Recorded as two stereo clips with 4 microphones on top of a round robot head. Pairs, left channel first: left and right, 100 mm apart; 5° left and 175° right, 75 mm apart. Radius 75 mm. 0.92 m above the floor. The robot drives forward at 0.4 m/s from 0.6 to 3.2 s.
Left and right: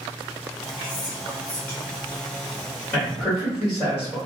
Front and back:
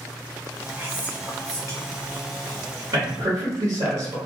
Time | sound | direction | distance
0.8 | whispering | 140° left | 0.7 m
2.9 | a man speaking | 175° left | 1.4 m